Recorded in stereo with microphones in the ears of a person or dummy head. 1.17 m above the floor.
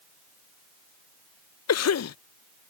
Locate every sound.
1.7 s a cough: 80° left